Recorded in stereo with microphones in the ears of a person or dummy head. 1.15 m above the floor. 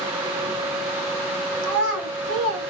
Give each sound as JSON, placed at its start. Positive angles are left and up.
{"t": 1.6, "sound": "a child speaking", "side_deg": -75, "distance_m": 1.7}